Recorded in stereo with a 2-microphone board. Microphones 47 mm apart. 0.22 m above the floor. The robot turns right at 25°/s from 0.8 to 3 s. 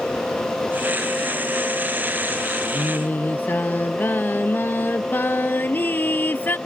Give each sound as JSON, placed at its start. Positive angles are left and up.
{"t": 2.7, "sound": "singing", "side_deg": 40}